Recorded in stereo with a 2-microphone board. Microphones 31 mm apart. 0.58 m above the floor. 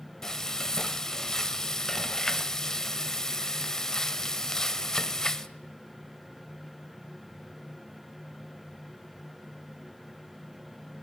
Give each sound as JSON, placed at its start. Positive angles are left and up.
{"t": 0.2, "sound": "frying", "side_deg": 15, "distance_m": 1.0}